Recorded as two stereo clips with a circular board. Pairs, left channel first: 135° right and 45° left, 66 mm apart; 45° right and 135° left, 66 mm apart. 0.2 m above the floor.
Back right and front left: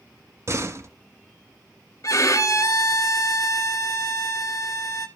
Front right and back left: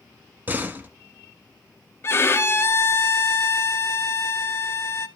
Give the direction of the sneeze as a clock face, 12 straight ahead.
I don't hear a sneeze.